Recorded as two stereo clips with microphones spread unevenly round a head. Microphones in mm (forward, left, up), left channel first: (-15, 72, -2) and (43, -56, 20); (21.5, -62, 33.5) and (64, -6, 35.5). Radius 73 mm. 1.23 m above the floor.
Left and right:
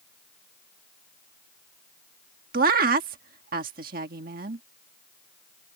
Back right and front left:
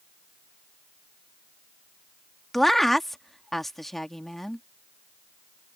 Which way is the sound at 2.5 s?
40° right.